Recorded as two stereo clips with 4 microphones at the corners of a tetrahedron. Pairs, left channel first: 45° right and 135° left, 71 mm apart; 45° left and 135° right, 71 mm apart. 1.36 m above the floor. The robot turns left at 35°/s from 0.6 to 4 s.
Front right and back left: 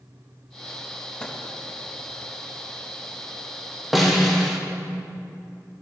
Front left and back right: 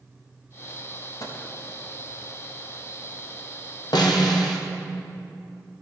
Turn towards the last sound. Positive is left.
turn(degrees=45)